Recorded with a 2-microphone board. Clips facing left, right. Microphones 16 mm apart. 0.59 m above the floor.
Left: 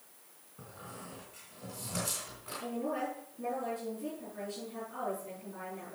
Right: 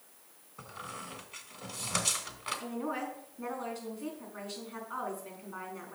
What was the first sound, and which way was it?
A squeak, 60° right (ahead or behind).